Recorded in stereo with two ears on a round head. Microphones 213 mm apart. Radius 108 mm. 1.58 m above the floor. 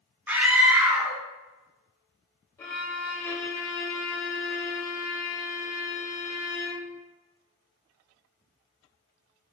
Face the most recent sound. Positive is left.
turn(degrees=10)  # may be behind; listen again after turning